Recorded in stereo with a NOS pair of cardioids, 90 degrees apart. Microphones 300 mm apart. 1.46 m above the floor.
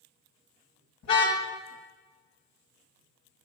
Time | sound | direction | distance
1.0 | a car horn | 65° left | 6 m